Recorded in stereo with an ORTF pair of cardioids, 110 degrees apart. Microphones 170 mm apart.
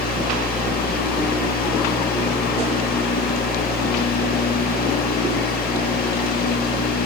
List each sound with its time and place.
0.0 s a fan: 65° left, 1.9 m